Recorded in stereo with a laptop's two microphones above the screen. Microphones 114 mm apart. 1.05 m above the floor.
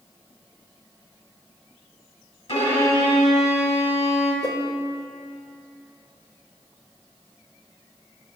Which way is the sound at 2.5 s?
65° left (ahead or behind).